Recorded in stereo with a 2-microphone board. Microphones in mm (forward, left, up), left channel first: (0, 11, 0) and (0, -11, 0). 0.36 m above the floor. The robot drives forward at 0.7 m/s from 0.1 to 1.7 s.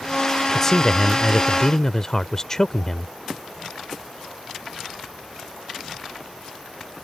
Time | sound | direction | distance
0.5 | a man speaking | 15° left (ahead or behind) | ?